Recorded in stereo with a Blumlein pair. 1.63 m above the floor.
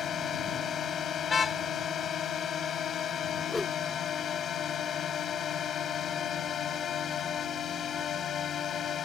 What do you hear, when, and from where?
0.0 s a drone: 25° left
1.3 s a car horn: 15° left
3.5 s a whoosh: 5° left